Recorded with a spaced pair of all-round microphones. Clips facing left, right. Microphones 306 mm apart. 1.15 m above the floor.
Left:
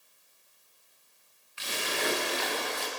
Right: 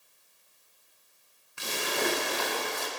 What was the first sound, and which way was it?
A splash, 55° right (ahead or behind).